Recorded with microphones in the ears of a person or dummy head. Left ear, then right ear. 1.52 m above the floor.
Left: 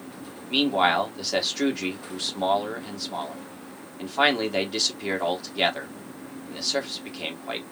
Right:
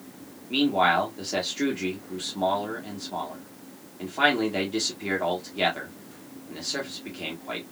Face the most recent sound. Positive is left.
turn(degrees=25)  # may be behind; listen again after turning